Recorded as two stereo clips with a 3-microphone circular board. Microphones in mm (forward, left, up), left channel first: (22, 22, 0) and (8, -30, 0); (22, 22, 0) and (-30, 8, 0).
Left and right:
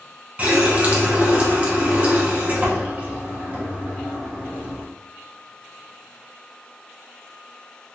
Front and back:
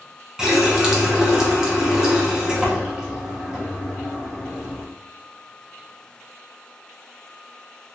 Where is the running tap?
105° right, 0.6 m.